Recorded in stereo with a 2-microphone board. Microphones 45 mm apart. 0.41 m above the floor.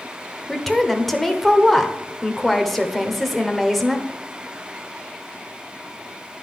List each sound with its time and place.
0.5 s a woman speaking: 5° left (ahead or behind), 0.9 m